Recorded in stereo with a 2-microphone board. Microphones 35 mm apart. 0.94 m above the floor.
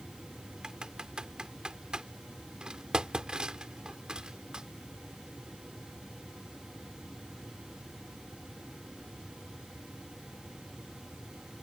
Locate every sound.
0.6 s typing on a keyboard: 20° right (ahead or behind)